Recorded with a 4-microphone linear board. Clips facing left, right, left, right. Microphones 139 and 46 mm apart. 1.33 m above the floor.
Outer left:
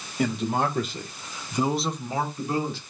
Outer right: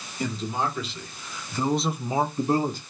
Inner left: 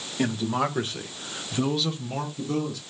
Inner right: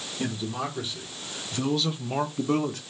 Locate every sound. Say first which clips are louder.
0.2 s a man speaking: outer left 3 dB, inner left 6 dB; 65° left (ahead or behind), 1.5 m; by 2.8 s 45° right (ahead or behind), 1.2 m